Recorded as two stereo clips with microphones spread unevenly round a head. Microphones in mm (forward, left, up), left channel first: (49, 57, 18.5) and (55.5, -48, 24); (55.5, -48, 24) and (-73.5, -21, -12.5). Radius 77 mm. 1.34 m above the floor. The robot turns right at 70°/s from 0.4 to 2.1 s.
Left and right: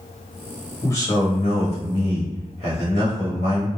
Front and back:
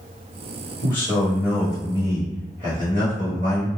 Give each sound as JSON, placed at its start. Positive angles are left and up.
{"t": 0.8, "sound": "a man speaking", "azimuth_deg": 25, "distance_m": 1.1}